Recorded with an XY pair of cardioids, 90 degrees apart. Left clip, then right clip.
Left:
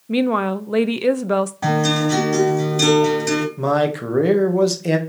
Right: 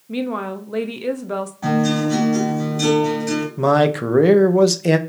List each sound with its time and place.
0.1 s a woman speaking: 55° left, 0.6 m
1.6 s a guitar: 65° left, 3.5 m
3.6 s a man speaking: 30° right, 1.2 m